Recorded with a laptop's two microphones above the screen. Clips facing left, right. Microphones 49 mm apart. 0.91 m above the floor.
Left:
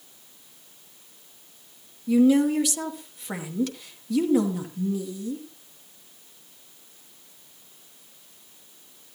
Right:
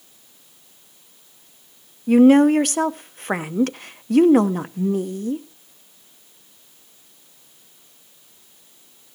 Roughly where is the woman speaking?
Right.